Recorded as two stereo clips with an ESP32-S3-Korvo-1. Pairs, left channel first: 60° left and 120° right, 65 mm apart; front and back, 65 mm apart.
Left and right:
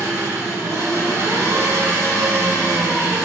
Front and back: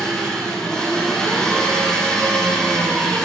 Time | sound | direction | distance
0.0 | an engine running | 80° right | 5.5 m